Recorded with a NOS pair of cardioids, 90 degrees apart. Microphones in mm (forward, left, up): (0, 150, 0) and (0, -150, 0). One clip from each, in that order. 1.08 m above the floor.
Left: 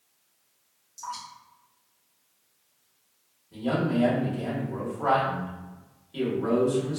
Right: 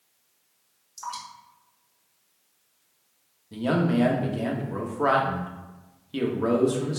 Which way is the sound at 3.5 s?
55° right.